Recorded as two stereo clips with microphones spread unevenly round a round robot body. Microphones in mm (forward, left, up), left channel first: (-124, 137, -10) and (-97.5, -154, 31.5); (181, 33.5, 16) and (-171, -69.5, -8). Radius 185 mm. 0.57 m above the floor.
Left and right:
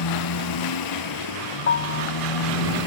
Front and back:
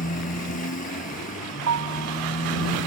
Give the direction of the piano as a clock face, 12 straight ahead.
7 o'clock.